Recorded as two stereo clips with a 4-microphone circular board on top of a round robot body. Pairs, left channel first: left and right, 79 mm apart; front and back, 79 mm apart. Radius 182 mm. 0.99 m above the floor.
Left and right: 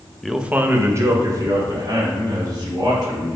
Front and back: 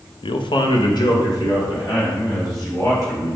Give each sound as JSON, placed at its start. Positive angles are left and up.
{"t": 0.2, "sound": "a man speaking", "azimuth_deg": 5, "distance_m": 0.7}